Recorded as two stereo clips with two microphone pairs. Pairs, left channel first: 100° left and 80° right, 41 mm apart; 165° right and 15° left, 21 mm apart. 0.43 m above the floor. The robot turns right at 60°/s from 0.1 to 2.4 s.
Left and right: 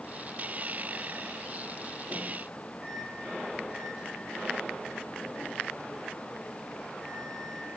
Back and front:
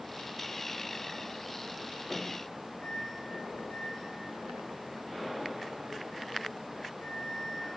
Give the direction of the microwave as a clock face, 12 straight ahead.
5 o'clock.